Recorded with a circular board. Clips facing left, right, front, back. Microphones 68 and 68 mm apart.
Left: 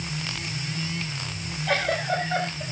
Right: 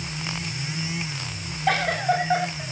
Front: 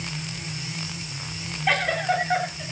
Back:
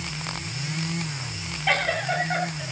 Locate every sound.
1.7 s a giggle: 95° right, 10 m